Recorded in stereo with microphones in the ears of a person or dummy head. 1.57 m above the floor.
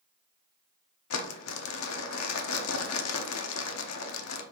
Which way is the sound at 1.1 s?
85° left.